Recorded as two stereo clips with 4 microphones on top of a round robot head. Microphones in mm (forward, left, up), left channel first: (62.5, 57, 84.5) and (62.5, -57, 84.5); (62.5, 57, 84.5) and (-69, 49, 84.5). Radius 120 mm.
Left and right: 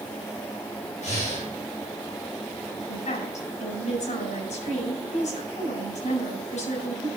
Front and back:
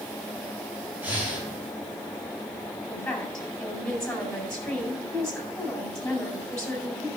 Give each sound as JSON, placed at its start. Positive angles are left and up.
{"t": 1.0, "sound": "breathing", "azimuth_deg": 105, "distance_m": 5.0}
{"t": 2.9, "sound": "a woman speaking", "azimuth_deg": 90, "distance_m": 4.5}